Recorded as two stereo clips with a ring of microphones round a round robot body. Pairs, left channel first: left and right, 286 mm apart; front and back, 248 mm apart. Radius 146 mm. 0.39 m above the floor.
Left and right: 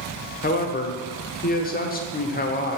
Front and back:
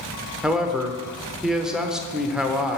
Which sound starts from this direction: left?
A man speaking, at 0.4 s.